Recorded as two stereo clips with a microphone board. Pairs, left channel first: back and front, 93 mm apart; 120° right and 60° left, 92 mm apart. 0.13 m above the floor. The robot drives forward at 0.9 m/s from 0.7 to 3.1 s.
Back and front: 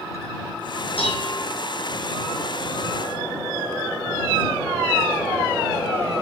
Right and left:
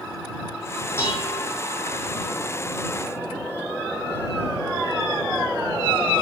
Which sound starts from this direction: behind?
Dishes clattering, at 1.0 s.